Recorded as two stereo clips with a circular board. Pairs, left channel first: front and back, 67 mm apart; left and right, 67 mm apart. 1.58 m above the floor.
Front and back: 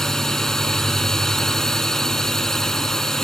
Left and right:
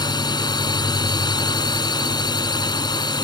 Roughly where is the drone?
Left.